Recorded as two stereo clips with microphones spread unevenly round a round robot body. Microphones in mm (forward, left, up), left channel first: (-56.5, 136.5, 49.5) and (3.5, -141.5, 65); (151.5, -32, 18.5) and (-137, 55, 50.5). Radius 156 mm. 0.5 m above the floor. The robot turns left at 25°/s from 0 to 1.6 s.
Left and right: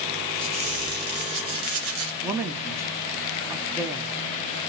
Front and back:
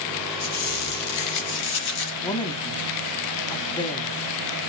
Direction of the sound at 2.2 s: 5° right.